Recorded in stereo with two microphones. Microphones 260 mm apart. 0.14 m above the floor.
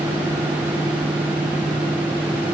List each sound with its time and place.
Only background noise.